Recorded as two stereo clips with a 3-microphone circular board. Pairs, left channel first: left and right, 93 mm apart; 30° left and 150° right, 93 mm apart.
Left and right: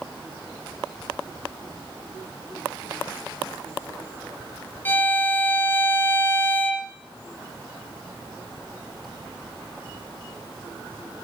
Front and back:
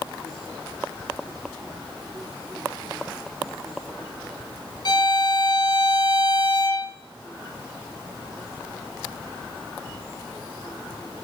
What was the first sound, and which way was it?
A violin, 30° left.